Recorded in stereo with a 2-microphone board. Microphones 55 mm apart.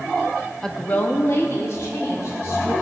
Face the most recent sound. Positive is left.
turn(degrees=70)  # may be behind; listen again after turning